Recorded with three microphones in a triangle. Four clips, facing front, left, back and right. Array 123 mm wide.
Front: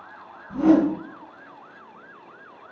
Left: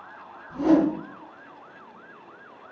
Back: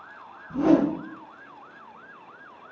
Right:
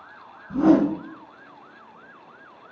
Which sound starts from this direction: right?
A whoosh, at 0.5 s.